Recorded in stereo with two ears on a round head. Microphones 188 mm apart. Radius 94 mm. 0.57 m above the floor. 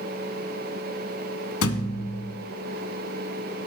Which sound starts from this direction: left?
A thud, at 1.6 s.